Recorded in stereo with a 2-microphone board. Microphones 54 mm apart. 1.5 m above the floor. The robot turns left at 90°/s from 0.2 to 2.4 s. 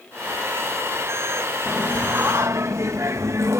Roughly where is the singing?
Ahead.